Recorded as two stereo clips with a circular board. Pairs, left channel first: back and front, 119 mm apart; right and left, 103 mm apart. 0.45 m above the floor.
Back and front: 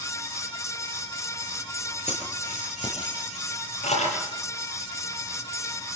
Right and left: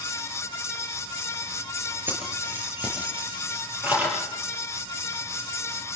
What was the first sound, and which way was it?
Keys jangling, 160° left.